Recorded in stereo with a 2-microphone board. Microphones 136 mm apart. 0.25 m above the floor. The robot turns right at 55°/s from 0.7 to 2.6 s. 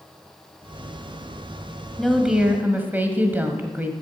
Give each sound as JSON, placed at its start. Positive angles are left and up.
{"t": 2.0, "sound": "a woman speaking", "azimuth_deg": 170, "distance_m": 1.1}